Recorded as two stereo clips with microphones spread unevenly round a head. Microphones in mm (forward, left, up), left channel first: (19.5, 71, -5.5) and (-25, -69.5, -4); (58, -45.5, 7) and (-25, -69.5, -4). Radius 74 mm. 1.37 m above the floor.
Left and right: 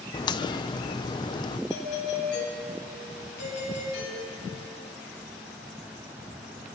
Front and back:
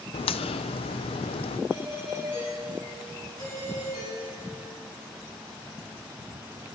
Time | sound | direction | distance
0.1 | a crack | 10° left | 0.7 m
1.7 | a doorbell | 75° left | 9.5 m